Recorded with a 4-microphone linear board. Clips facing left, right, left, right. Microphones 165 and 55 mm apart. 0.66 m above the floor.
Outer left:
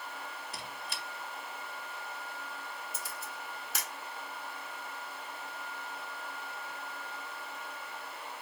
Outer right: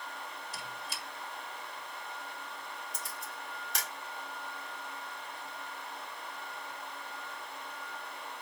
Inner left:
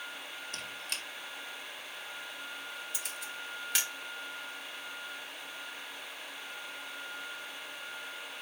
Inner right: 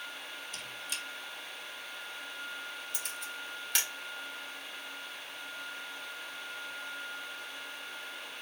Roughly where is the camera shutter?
Centre.